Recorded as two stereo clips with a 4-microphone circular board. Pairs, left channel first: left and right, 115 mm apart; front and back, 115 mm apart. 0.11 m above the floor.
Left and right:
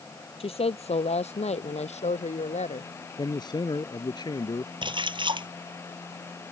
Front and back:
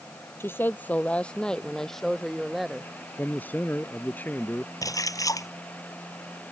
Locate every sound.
0.4 s a woman speaking: 70° left; by 2.9 s 95° left
3.2 s a man speaking: 65° left
4.8 s a splash: 55° right